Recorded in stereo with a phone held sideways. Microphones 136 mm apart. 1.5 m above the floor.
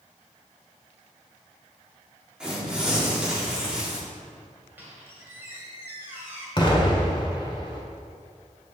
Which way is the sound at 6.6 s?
35° left (ahead or behind).